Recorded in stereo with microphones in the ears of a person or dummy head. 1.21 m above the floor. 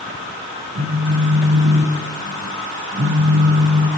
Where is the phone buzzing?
50° right (ahead or behind), 0.6 m.